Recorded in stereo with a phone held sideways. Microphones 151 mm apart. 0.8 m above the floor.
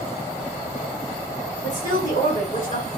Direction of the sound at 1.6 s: 60° left (ahead or behind).